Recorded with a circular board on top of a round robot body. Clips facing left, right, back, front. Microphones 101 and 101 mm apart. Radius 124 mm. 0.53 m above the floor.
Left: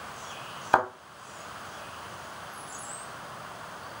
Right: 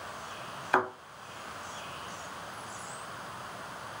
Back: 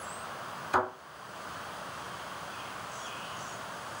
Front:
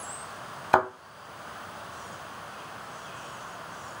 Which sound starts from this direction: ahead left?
A thud, at 0.7 s.